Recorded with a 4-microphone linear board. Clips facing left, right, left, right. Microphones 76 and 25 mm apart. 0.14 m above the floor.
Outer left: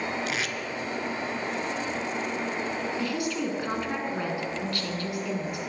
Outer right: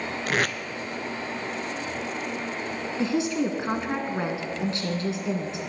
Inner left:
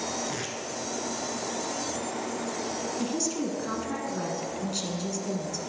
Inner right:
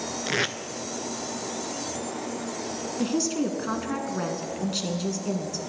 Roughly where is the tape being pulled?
Right.